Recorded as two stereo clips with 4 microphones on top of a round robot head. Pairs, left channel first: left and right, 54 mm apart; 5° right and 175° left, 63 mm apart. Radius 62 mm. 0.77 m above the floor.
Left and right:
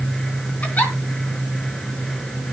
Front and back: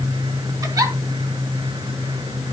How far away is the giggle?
About 4 m.